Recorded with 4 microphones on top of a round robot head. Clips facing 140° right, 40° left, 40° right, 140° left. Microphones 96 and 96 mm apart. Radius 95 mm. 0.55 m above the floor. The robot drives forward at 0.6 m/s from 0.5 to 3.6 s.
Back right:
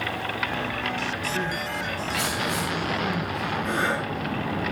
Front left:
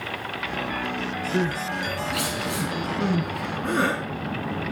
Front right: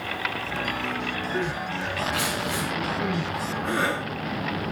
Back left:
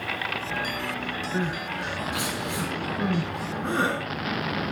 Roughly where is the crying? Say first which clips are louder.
Front left 3 dB, even; ahead left.